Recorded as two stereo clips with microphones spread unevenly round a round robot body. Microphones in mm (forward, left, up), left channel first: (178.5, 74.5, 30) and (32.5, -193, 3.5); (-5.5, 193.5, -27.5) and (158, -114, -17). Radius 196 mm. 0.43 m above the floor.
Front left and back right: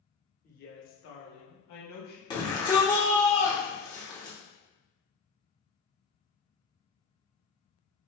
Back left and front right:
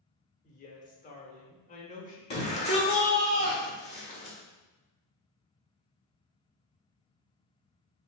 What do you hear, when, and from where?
0.4 s a woman speaking: 100° left, 0.7 m; by 2.2 s 50° left, 1.3 m
2.3 s a shout: 125° left, 0.8 m